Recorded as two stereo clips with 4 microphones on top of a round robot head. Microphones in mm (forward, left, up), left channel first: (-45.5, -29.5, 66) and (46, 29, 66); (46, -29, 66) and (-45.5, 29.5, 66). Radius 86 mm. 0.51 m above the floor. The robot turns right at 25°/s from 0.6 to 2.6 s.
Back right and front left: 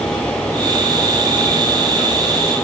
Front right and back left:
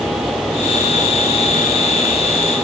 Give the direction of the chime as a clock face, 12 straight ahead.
I don't hear a chime.